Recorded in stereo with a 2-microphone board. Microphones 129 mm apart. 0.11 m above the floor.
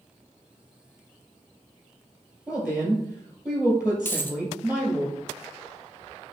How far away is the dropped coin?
About 0.5 m.